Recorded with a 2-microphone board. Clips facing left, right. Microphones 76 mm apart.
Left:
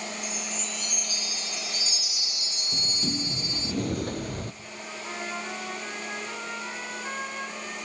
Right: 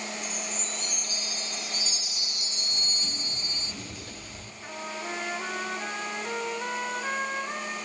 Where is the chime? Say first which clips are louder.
Left 1 dB; 35° right (ahead or behind), 2 m.